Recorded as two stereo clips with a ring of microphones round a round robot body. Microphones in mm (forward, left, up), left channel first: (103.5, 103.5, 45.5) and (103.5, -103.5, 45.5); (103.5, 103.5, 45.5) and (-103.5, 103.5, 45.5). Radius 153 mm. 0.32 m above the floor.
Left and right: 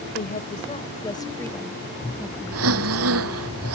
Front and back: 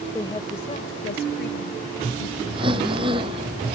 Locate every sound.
0.1 s a woman speaking: 75° left; by 3.5 s 20° right
2.5 s breathing: 105° right